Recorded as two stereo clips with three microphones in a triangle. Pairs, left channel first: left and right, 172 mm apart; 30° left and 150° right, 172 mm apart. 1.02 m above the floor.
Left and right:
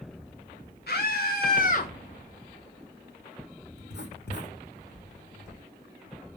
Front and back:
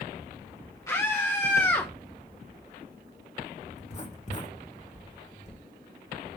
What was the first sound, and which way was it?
A scream, 100° left.